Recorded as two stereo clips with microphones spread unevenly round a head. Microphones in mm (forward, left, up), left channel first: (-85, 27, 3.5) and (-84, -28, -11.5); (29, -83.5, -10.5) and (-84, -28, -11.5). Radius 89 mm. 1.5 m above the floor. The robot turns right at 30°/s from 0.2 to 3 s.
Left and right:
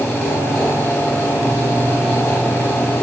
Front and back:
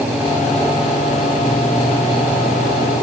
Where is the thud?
I don't hear a thud.